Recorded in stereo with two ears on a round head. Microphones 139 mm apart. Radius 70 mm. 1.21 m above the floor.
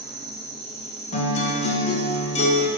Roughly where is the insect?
Centre.